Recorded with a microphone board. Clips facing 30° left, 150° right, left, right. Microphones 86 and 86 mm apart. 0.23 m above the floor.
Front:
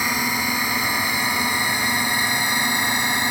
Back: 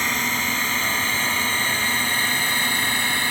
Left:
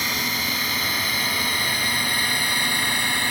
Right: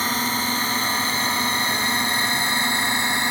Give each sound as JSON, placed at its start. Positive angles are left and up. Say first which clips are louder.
{"t": 0.0, "sound": "a drone", "louder": "front 1 dB, right 4 dB", "azimuth_deg": -45}